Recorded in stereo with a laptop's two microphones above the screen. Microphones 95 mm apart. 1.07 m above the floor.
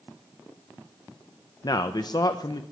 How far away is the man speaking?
About 0.6 m.